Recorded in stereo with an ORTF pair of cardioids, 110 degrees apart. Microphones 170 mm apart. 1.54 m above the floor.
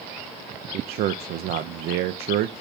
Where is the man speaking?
70° right, 0.5 m.